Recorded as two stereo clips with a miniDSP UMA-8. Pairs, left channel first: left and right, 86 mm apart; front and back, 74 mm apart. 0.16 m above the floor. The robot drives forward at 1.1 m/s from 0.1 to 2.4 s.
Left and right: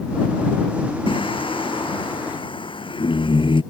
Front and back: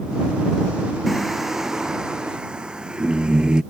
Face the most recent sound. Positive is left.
turn(degrees=100)